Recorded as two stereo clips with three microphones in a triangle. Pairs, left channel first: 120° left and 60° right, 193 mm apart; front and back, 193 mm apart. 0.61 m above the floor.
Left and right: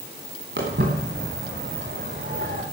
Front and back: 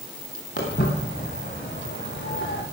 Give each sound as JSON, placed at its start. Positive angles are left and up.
{"t": 0.6, "sound": "footsteps", "azimuth_deg": -25, "distance_m": 5.0}